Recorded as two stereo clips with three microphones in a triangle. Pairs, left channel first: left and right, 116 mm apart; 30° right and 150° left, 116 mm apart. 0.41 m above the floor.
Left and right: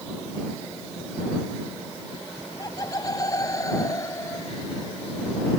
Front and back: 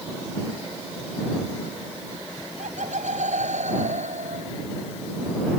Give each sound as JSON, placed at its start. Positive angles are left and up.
{"t": 2.4, "sound": "laughter", "azimuth_deg": 145}